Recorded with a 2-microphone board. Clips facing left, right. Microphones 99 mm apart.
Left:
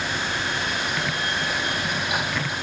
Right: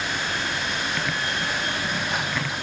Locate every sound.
Only background noise.